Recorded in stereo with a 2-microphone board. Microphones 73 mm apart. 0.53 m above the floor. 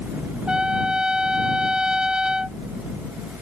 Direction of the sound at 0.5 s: 10° right (ahead or behind).